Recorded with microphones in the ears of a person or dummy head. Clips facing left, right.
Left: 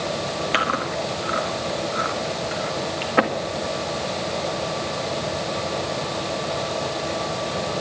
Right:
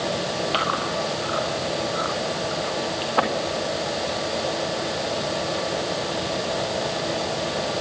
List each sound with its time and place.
0.5 s chewing: 30° left (ahead or behind), 1.9 m